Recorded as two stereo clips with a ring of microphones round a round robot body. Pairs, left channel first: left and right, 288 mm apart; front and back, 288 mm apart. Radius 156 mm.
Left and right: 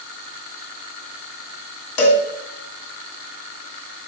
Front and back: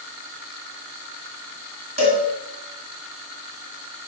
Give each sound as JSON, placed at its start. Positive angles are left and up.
{"t": 2.0, "sound": "a cowbell", "azimuth_deg": 110, "distance_m": 2.0}